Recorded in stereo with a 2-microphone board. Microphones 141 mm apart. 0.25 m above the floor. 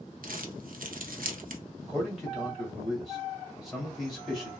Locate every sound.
0.2 s crumpling: 80° right, 0.6 m
1.8 s a man speaking: centre (ahead or behind), 1.7 m